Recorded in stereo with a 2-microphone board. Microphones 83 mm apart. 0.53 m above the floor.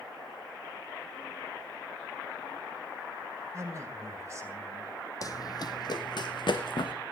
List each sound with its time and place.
3.5 s a man speaking: 35° right (ahead or behind), 2.5 m
5.2 s running footsteps: 45° left (ahead or behind), 0.9 m; by 6.9 s 65° left (ahead or behind), 2 m